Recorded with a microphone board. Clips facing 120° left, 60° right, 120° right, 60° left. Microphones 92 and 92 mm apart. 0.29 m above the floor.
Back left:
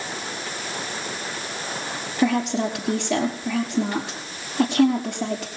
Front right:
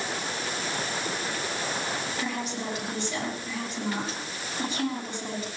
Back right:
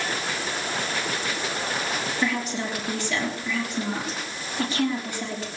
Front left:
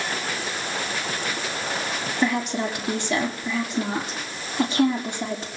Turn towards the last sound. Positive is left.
turn(degrees=130)